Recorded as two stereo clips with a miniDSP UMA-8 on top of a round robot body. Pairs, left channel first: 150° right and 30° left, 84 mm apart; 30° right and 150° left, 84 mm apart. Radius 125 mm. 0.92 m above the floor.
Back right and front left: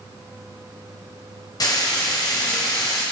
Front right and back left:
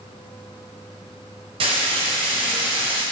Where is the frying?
165° left, 1.4 m.